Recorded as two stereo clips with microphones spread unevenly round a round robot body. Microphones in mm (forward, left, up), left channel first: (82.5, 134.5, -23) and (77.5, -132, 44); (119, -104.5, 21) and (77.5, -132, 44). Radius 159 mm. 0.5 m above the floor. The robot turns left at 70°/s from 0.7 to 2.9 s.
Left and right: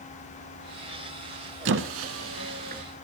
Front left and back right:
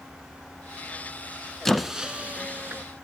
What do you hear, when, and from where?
1.6 s a squeak: 65° right, 0.7 m; by 2.8 s 145° right, 0.7 m